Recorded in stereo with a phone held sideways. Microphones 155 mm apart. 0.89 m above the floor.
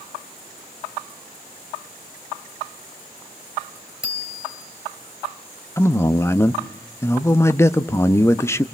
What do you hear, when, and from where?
4.0 s a bicycle bell: 80° right, 3 m
5.8 s a man speaking: 15° left (ahead or behind), 1.0 m